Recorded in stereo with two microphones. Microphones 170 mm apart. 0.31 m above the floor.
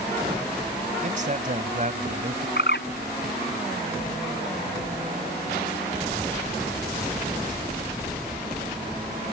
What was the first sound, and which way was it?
A man speaking, 45° right (ahead or behind).